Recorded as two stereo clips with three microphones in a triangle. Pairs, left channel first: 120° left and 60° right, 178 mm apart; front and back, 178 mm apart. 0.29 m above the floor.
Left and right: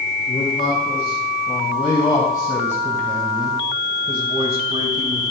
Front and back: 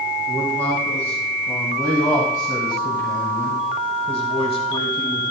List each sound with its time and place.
0.3 s a man speaking: 75° left, 2.5 m; by 5.3 s 55° right, 1.5 m